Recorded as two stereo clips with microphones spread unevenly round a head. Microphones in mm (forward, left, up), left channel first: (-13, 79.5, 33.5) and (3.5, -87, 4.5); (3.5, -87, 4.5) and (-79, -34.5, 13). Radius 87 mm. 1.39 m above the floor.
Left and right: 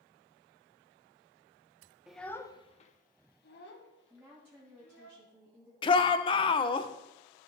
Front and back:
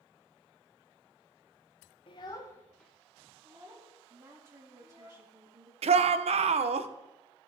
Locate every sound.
2.1 s a child speaking: 10° left, 0.6 m; by 5.1 s 90° left, 1.8 m
4.1 s a woman speaking: 160° right, 1.9 m
5.8 s a shout: 155° left, 0.6 m